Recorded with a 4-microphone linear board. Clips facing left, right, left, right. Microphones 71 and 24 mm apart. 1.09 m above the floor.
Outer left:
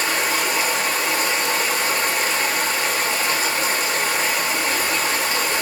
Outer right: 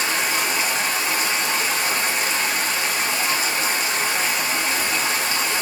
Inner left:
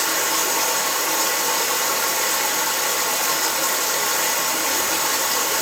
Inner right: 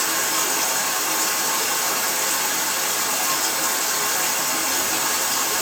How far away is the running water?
About 1.1 m.